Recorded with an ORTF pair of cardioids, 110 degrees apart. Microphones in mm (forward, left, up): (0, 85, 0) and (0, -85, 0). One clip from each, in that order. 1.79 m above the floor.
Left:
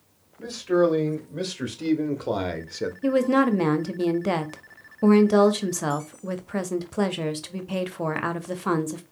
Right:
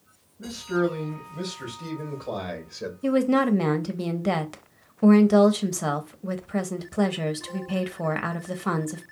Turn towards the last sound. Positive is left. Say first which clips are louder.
# left 1 dB
turn(degrees=5)